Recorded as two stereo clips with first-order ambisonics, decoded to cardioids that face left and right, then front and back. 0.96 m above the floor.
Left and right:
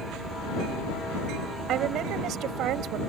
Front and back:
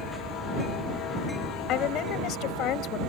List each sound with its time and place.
1.7 s a woman speaking: 45° right